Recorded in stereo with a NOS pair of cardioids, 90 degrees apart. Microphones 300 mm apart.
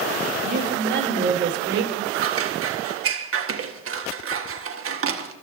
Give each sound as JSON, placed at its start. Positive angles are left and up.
{"t": 0.4, "sound": "a woman speaking", "azimuth_deg": -30, "distance_m": 5.0}
{"t": 2.1, "sound": "scissors", "azimuth_deg": -45, "distance_m": 1.6}